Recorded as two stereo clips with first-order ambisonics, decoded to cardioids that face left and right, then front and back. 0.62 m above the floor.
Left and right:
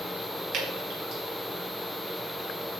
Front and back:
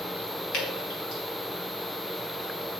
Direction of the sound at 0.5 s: 40° right.